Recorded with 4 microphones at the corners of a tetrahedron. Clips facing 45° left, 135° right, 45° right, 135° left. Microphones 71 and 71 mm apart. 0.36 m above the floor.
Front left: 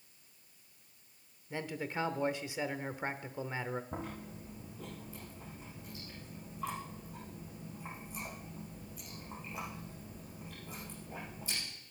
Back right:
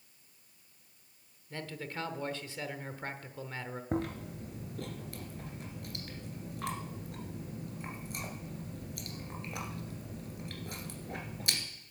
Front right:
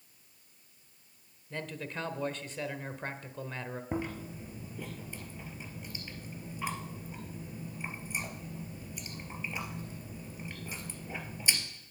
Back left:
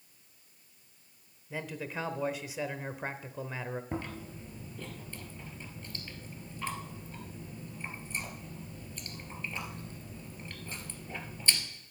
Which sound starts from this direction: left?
A man speaking, at 1.5 s.